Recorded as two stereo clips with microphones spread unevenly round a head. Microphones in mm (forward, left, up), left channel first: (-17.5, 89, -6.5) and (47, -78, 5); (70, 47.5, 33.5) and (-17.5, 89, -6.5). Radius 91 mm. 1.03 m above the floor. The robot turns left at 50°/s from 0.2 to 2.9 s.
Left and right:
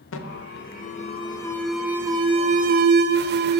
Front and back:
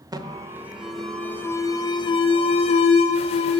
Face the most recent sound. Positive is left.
turn(degrees=-40)